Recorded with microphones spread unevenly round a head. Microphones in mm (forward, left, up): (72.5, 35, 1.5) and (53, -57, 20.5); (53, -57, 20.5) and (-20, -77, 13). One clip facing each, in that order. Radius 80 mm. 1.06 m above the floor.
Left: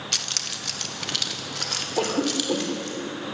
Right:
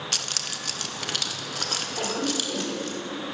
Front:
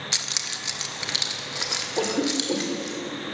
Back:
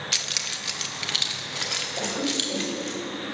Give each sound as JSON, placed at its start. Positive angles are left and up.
{"t": 0.1, "sound": "keys jangling", "azimuth_deg": -50, "distance_m": 0.9}
{"t": 2.0, "sound": "a cough", "azimuth_deg": 40, "distance_m": 3.0}